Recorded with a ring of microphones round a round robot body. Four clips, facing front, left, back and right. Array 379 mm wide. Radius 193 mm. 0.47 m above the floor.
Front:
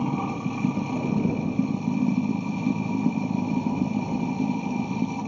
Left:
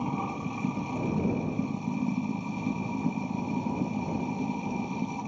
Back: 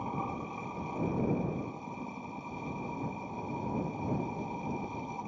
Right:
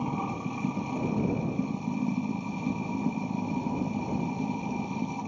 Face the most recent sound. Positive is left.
turn(degrees=0)